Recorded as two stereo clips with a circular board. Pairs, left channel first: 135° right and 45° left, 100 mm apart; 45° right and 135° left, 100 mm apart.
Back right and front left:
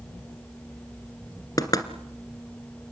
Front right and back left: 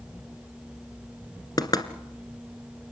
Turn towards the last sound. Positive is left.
turn(degrees=-85)